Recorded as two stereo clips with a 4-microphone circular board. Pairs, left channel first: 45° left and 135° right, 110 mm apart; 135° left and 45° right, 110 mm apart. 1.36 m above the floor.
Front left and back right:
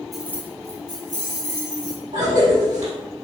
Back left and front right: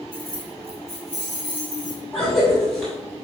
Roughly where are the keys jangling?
Ahead right.